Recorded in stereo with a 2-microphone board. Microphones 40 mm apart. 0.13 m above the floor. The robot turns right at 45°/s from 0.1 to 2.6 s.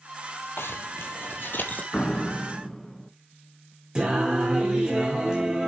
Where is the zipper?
70° left (ahead or behind), 1.4 m; by 1.8 s 45° left (ahead or behind), 1.4 m.